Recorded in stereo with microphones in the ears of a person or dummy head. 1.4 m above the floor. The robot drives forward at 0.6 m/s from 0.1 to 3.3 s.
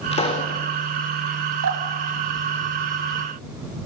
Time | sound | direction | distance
0.1 | a pop | 30° left (ahead or behind) | 3.5 m
1.6 | dripping | 80° right | 5 m